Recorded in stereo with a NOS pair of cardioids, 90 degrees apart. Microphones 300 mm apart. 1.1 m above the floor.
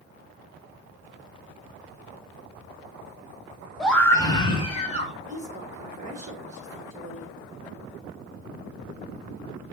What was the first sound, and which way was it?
A scream, straight ahead.